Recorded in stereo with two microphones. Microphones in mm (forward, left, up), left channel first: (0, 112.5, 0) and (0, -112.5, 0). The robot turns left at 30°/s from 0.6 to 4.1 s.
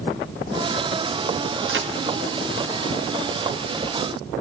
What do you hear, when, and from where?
1.7 s a crack: 55° right (ahead or behind), 0.8 m